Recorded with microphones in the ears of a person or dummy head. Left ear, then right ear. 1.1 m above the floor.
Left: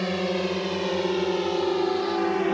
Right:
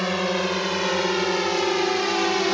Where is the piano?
I don't hear a piano.